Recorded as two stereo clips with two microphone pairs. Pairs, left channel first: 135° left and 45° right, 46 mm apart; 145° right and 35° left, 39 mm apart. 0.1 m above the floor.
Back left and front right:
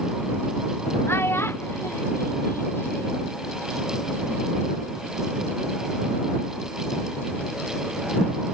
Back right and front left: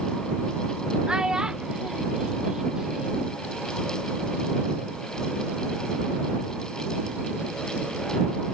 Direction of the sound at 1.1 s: 110° left.